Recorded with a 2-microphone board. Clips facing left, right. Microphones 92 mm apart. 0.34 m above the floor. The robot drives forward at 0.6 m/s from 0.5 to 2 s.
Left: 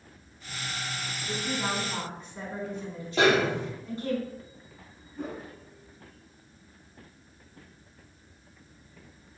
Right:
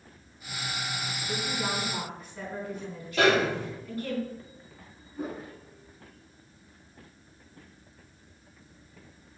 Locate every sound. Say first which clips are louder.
1.3 s a woman speaking: left 1 dB; 30° left (ahead or behind), 3 m; by 4.2 s 25° left (ahead or behind), 3.5 m
3.2 s a snare drum: even; 20° left (ahead or behind), 3 m
5.2 s a whoosh: right 1 dB; 10° right (ahead or behind), 1.7 m